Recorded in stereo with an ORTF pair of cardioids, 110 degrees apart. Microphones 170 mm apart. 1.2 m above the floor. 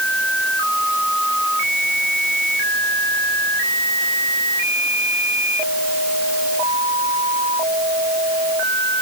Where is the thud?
I don't hear a thud.